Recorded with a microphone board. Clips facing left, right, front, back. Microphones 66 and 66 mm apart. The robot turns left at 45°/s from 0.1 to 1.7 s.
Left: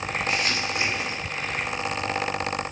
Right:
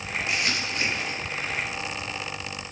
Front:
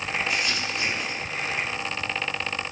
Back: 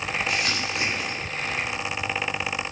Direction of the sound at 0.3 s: 165° right.